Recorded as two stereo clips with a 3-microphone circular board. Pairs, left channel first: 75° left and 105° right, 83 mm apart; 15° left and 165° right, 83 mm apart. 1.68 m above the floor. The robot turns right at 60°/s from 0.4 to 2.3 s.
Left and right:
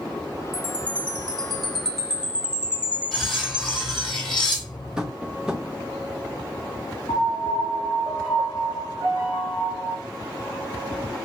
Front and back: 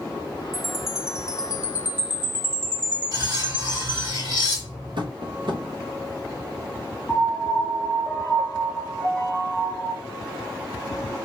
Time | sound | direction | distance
0.5 | a chime | 95° left | 1.2 m
3.1 | cutlery clinking | 160° left | 2.5 m
5.0 | tapping | 175° left | 1.0 m
7.1 | a piano | 115° left | 3.5 m